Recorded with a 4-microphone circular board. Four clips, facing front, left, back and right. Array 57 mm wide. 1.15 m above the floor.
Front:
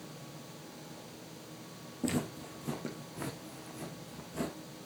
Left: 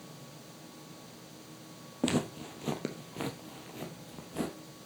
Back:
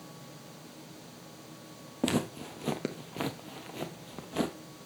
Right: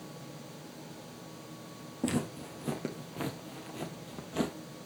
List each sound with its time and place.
2.0 s footsteps: 140° left, 2 m; by 4.5 s 155° right, 2.0 m